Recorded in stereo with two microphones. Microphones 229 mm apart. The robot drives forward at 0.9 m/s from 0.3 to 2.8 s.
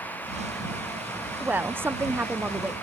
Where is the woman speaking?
5° right (ahead or behind), 0.7 m.